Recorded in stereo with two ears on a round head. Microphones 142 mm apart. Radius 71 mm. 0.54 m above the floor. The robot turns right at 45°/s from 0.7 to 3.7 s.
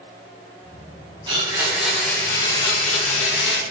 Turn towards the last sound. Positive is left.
turn(degrees=80)